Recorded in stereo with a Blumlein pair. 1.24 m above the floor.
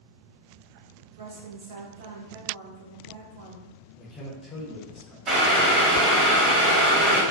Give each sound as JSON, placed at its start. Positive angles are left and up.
{"t": 1.1, "sound": "a woman speaking", "azimuth_deg": -60, "distance_m": 0.7}
{"t": 4.0, "sound": "a man speaking", "azimuth_deg": 10, "distance_m": 0.9}
{"t": 5.3, "sound": "boiling", "azimuth_deg": -30, "distance_m": 1.2}